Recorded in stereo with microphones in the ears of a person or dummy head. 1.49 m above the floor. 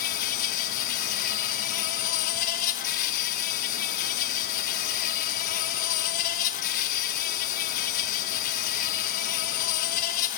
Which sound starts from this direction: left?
An insect, at 0.0 s.